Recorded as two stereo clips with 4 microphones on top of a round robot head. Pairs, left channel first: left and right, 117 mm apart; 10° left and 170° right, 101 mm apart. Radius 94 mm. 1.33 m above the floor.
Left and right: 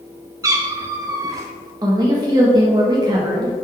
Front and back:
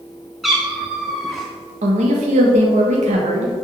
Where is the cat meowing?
80° right, 0.5 m.